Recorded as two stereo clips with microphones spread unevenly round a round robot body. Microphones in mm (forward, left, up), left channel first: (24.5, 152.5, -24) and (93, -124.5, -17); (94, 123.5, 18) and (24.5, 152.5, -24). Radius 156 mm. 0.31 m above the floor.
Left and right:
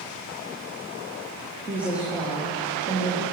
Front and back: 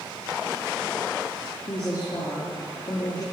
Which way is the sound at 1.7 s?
10° left.